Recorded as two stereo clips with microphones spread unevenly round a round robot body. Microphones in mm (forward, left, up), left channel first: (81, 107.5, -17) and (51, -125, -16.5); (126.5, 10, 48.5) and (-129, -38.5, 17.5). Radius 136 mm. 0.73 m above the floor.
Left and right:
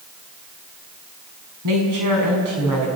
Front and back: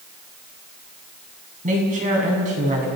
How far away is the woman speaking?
About 6.5 m.